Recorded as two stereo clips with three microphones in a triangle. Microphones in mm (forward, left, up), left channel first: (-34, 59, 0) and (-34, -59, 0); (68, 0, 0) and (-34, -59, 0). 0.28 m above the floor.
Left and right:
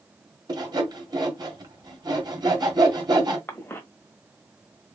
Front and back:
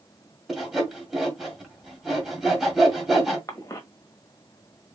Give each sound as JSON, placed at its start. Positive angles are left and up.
{"t": 0.5, "sound": "sawing", "azimuth_deg": -65, "distance_m": 1.6}
{"t": 3.5, "sound": "a cough", "azimuth_deg": 40, "distance_m": 1.2}